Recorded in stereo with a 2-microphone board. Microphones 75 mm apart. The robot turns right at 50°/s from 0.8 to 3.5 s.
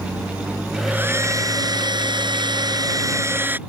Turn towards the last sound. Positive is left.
turn(degrees=-25)